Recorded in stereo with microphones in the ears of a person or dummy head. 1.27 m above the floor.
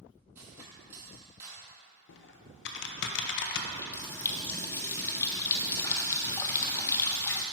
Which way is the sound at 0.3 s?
10° right (ahead or behind).